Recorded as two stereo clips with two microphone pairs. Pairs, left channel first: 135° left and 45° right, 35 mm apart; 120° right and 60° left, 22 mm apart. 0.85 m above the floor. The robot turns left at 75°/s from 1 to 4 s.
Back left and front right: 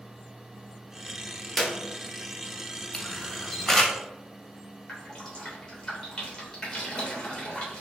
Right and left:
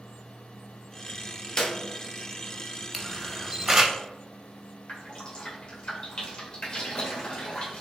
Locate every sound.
1.6 s a clap: 145° right, 0.8 m; by 1.8 s 160° right, 0.8 m
2.9 s a camera shutter: 130° left, 0.6 m; by 4.0 s 55° left, 0.6 m
4.9 s dripping: 155° right, 1.4 m